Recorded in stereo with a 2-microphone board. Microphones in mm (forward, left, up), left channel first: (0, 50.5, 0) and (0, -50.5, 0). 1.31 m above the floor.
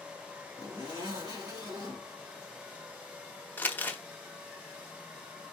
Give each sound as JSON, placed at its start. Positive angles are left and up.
{"t": 0.6, "sound": "a zipper", "side_deg": -40, "distance_m": 2.0}
{"t": 3.6, "sound": "crumpling", "side_deg": 20, "distance_m": 0.9}